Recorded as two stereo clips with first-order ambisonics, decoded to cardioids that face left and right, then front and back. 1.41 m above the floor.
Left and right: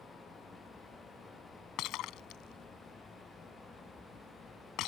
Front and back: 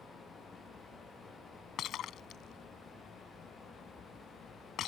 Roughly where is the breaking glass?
Ahead left.